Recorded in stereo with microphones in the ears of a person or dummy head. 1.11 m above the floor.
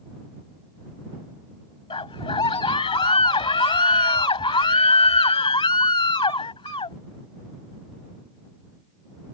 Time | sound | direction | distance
1.9 | a scream | 20° left (ahead or behind) | ?